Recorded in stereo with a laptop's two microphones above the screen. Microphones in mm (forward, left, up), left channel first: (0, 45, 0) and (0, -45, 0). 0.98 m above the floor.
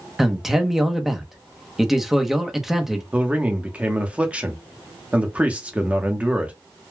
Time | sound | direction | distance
0.2 | a man speaking | 5° right (ahead or behind) | 0.8 m
3.1 | a man speaking | 15° right (ahead or behind) | 0.9 m